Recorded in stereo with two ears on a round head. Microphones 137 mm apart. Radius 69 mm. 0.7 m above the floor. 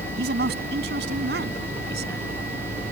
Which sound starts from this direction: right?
A man speaking, at 0.2 s.